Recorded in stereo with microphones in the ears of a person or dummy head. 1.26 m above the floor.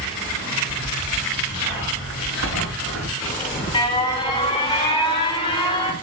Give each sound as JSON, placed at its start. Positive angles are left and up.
{"t": 0.5, "sound": "a zipper", "side_deg": -75, "distance_m": 9.5}
{"t": 3.2, "sound": "an alarm", "side_deg": 25, "distance_m": 3.0}